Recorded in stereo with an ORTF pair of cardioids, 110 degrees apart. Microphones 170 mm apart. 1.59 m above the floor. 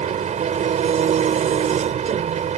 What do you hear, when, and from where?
0.0 s an engine running: 45° right